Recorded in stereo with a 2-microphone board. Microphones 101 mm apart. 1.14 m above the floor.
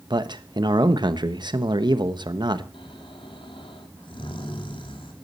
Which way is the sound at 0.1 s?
50° right (ahead or behind).